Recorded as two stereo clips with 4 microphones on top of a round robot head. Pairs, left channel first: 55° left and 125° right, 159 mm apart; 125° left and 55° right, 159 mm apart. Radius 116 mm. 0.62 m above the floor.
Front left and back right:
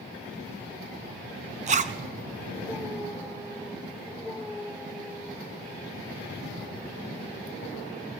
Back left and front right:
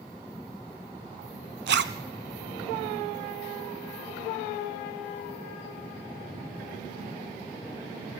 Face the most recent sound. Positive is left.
turn(degrees=-75)